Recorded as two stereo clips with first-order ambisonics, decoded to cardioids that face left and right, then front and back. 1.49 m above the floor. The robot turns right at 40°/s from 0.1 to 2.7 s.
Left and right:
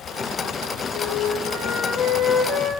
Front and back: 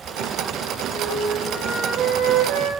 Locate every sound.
0.9 s a flute: 100° left, 4.5 m; by 2.7 s 170° left, 4.5 m